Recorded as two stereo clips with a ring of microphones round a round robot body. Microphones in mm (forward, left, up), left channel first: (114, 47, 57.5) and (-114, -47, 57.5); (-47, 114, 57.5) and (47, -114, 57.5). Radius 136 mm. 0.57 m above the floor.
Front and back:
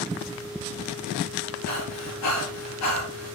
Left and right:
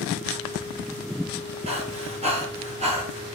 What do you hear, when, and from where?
1.7 s breathing: straight ahead, 4 m